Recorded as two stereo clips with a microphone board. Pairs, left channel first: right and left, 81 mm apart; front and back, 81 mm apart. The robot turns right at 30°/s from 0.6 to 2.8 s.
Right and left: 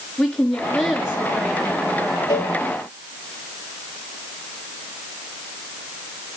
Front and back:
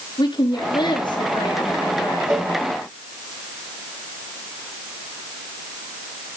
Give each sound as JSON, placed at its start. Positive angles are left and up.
{"t": 0.2, "sound": "a woman speaking", "azimuth_deg": -5, "distance_m": 4.5}
{"t": 2.3, "sound": "a cowbell", "azimuth_deg": -130, "distance_m": 5.5}